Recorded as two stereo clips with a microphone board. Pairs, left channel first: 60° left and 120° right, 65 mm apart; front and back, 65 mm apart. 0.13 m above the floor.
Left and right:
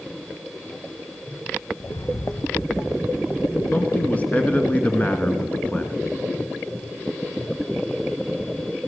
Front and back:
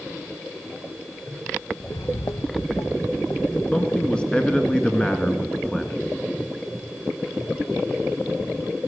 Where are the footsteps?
40° left, 0.7 m; by 3.6 s straight ahead, 3 m.